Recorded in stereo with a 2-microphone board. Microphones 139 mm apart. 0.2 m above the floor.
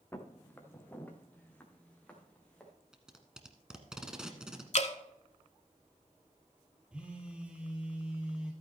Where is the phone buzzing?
10° right (ahead or behind), 2 m.